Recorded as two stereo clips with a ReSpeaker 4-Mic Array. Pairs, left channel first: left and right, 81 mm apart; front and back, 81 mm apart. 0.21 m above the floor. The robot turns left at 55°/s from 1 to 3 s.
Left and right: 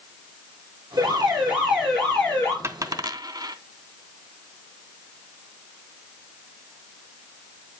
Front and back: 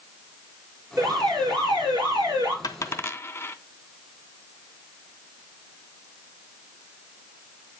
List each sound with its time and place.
1.0 s an alarm: 130° right, 5.5 m; by 2.5 s 145° left, 5.5 m
2.6 s a dropped coin: 40° right, 0.5 m; by 3.5 s 60° right, 0.5 m